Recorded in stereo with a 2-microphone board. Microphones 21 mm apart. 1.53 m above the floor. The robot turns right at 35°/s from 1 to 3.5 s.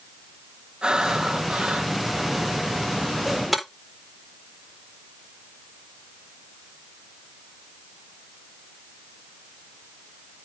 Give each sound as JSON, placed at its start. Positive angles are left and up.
{"t": 0.8, "sound": "breathing", "azimuth_deg": -140, "distance_m": 2.5}
{"t": 3.5, "sound": "breaking glass", "side_deg": -10, "distance_m": 4.0}